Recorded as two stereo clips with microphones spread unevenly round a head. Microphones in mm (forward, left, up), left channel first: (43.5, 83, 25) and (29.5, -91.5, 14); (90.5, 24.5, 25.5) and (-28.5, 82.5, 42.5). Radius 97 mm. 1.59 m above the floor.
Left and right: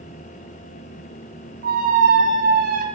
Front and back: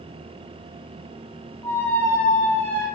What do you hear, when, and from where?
1.6 s a squeak: 110° right, 0.5 m